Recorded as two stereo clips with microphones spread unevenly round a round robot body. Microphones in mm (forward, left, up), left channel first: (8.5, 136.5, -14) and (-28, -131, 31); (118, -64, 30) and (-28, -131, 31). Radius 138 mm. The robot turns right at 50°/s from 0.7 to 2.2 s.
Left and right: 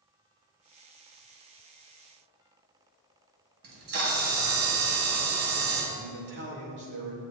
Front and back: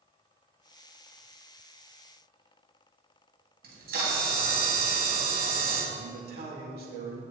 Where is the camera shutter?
140° right, 3 m.